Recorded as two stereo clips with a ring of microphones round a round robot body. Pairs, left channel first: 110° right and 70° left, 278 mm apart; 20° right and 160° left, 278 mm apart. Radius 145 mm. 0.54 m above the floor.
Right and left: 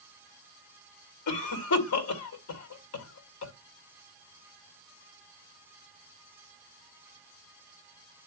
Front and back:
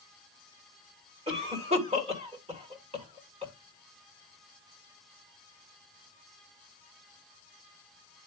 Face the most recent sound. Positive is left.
turn(degrees=-135)